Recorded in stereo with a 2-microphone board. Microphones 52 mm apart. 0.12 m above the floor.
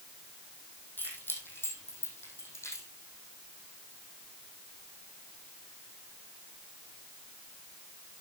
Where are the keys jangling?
40° left (ahead or behind), 3.5 m; by 2.9 s 60° left (ahead or behind), 4 m.